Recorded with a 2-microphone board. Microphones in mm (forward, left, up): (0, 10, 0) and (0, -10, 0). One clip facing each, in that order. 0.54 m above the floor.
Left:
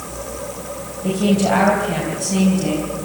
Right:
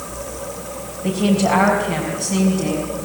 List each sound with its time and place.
1.0 s a woman speaking: 10° right (ahead or behind), 3.5 m; by 2.9 s 5° right (ahead or behind), 4.5 m